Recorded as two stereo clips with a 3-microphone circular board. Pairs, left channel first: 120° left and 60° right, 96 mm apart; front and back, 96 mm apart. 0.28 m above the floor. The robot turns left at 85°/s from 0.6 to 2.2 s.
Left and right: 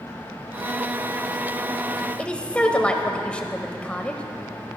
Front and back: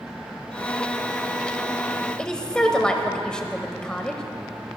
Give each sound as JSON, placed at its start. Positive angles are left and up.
{"t": 2.2, "sound": "a woman speaking", "azimuth_deg": 70, "distance_m": 0.9}